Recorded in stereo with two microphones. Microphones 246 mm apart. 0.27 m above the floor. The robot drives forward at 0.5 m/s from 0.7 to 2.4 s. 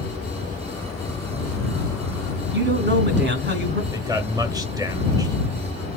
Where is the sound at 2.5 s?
45° right (ahead or behind), 2.5 m.